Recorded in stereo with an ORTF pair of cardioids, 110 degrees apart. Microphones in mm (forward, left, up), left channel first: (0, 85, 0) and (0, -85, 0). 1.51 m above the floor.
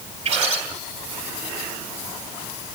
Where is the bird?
40° right, 3 m.